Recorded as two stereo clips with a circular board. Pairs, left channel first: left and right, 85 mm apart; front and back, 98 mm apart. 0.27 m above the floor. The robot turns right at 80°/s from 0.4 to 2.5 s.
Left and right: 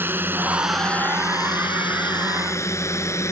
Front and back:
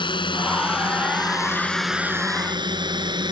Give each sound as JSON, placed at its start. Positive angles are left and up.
{"t": 0.0, "sound": "a drone", "azimuth_deg": -25}